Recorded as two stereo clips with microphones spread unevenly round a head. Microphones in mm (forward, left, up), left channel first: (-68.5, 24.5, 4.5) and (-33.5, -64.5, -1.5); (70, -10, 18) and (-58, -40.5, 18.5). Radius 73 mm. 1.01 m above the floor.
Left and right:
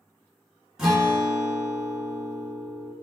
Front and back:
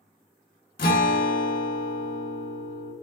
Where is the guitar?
20° left, 2.0 m.